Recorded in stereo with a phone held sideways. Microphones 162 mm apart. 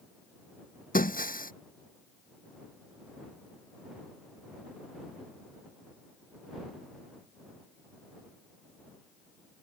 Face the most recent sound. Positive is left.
turn(degrees=60)  # may be behind; listen again after turning